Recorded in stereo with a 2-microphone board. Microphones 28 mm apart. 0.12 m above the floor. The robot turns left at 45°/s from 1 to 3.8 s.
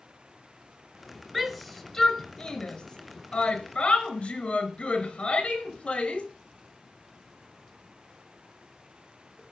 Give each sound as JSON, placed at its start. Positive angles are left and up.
{"t": 1.3, "sound": "a shout", "side_deg": 0, "distance_m": 2.5}